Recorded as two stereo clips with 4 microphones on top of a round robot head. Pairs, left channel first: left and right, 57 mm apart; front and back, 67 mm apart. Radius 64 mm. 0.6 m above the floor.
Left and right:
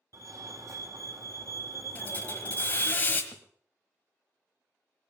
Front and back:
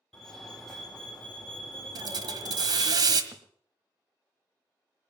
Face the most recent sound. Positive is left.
turn(degrees=130)